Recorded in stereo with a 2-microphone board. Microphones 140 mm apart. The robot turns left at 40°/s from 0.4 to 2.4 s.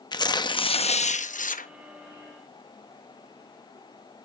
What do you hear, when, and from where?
0.1 s tearing paper: 150° left, 0.8 m; by 1.7 s 95° left, 0.8 m